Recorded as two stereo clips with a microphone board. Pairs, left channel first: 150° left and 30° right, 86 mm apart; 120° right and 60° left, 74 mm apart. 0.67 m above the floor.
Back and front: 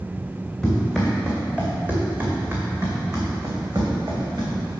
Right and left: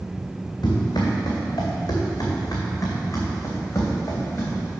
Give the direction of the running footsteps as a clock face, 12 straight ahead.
4 o'clock.